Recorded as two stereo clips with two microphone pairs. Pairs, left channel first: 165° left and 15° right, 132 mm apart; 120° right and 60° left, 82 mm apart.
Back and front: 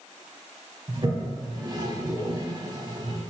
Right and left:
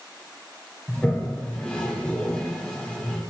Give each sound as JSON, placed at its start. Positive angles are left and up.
{"t": 0.9, "sound": "a toilet flushing", "azimuth_deg": -50, "distance_m": 0.6}